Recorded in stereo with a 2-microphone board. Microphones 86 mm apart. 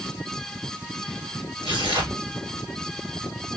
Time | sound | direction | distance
1.6 | tearing paper | 80° right | 2.5 m